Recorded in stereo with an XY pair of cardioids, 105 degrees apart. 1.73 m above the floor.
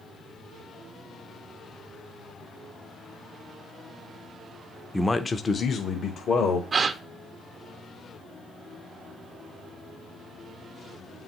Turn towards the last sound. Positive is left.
turn(degrees=-40)